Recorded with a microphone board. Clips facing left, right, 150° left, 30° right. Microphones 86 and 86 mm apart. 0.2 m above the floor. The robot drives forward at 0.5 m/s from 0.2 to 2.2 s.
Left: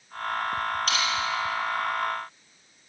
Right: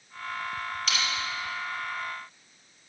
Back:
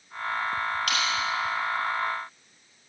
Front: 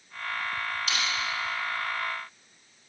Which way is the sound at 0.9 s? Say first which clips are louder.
Left 4 dB, back 3 dB; 130° left.